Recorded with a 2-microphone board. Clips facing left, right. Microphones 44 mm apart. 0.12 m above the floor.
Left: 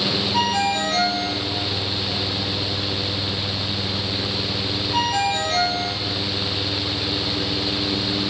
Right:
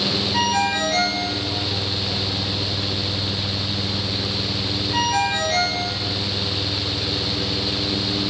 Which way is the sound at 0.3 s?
25° right (ahead or behind).